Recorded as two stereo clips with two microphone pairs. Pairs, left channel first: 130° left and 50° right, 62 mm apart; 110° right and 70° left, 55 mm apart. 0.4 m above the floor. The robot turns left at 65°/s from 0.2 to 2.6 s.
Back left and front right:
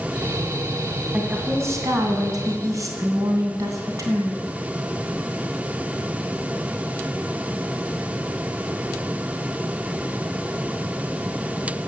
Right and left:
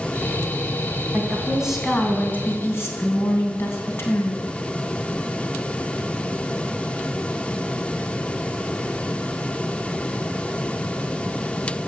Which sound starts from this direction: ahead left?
A woman speaking, at 1.1 s.